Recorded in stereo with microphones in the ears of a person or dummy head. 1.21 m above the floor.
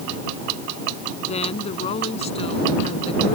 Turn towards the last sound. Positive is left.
turn(degrees=35)  # may be behind; listen again after turning